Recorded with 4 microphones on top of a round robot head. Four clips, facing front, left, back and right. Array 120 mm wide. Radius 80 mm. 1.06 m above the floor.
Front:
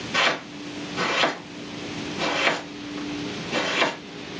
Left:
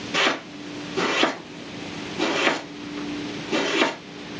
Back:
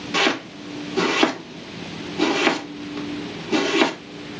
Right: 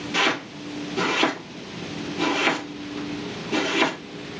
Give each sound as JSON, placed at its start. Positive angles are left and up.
{"t": 0.1, "sound": "chopping", "azimuth_deg": 175, "distance_m": 1.4}